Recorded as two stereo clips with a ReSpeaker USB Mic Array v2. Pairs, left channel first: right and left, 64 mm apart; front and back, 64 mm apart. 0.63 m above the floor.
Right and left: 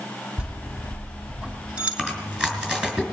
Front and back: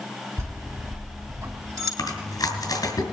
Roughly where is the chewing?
Ahead.